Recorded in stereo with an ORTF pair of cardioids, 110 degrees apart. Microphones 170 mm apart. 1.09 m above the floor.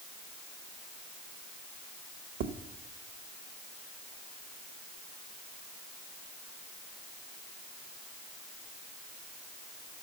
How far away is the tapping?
About 0.9 m.